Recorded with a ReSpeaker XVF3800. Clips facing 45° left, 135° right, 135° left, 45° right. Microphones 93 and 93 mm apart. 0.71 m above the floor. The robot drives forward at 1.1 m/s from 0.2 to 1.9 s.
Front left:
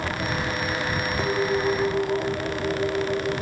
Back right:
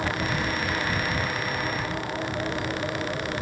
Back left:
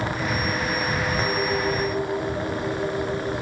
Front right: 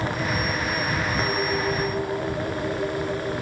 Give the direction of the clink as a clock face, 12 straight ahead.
11 o'clock.